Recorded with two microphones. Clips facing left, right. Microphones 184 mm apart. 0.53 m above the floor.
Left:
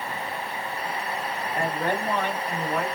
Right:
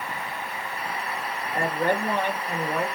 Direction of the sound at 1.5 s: 50° right (ahead or behind).